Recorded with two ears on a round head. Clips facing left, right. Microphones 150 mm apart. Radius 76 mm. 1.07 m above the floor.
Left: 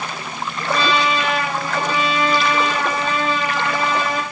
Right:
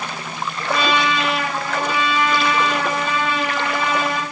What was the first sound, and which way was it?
A trumpet, 30° left (ahead or behind).